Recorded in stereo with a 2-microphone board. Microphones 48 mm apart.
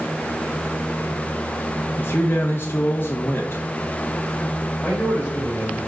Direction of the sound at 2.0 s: 50° left (ahead or behind).